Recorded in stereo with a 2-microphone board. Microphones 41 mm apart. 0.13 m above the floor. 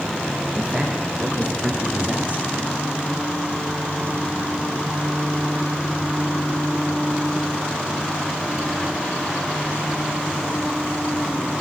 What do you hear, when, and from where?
0.6 s a man speaking: 35° right (ahead or behind), 6.5 m